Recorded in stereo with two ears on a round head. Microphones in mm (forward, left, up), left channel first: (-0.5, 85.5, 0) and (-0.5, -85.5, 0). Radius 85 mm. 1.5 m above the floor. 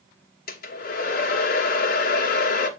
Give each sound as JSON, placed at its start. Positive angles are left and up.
{"t": 0.5, "sound": "a hair dryer", "side_deg": 50, "distance_m": 1.6}